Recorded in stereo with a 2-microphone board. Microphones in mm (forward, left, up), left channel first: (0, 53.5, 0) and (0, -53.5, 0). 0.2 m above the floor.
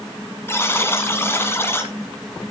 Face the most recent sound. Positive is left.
turn(degrees=25)  # may be behind; listen again after turning